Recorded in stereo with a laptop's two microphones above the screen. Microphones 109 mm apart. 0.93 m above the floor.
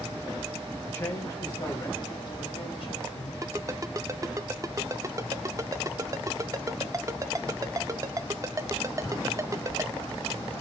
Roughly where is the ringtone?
Right.